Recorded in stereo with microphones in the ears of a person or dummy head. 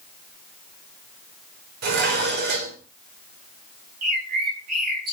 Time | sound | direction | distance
1.8 | dishes clattering | 55° right (ahead or behind) | 4 m
4.0 | a bird | 50° right (ahead or behind) | 5.5 m